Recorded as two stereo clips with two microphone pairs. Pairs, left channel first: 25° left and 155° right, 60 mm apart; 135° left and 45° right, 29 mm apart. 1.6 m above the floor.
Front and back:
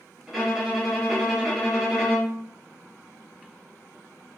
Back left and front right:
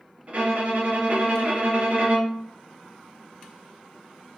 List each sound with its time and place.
0.3 s a violin: 70° right, 0.7 m